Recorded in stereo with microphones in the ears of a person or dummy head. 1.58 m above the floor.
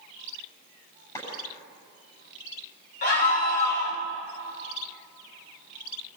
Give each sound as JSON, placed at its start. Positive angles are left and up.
{"t": 1.1, "sound": "a clap", "side_deg": 20, "distance_m": 9.5}
{"t": 3.0, "sound": "a scream", "side_deg": 45, "distance_m": 4.5}